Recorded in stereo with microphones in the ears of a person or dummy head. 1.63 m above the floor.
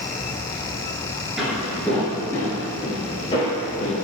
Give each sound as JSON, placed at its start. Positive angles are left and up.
{"t": 1.4, "sound": "footsteps", "side_deg": -5, "distance_m": 1.7}